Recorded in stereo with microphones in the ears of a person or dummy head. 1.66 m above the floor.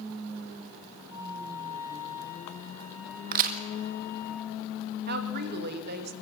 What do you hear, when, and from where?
1.1 s a flute: 20° right (ahead or behind), 3 m
3.3 s a crack: 55° right (ahead or behind), 1.7 m
5.1 s a woman speaking: 60° right (ahead or behind), 2 m